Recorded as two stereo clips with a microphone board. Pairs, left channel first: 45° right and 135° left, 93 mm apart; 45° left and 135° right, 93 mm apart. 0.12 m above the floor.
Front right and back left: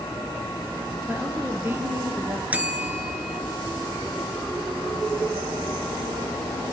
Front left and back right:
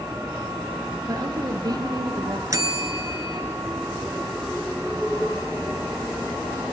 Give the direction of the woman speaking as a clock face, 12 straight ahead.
5 o'clock.